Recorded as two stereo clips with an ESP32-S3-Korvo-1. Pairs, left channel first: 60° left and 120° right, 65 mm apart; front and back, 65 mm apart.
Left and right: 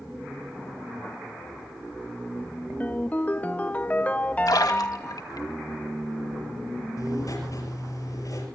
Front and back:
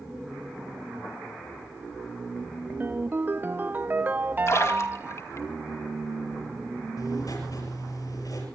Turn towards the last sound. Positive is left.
turn(degrees=25)